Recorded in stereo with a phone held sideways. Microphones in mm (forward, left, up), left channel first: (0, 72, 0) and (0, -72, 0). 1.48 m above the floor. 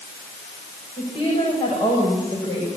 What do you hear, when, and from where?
1.0 s a woman speaking: 35° left (ahead or behind), 6.5 m